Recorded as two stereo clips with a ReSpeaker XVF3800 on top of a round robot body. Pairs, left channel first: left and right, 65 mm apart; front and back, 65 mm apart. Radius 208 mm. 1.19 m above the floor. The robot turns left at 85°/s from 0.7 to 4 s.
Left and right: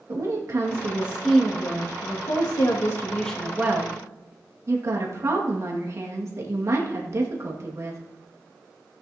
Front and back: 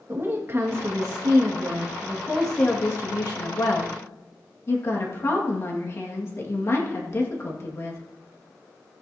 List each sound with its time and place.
0.1 s a woman speaking: 125° right, 2.0 m; by 8.0 s 50° right, 2.0 m